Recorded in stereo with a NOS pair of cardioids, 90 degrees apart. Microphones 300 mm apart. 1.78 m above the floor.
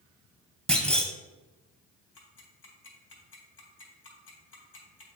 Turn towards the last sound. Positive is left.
turn(degrees=45)